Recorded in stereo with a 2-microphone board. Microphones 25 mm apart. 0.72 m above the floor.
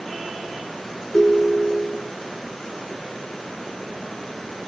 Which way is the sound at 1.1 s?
45° left (ahead or behind).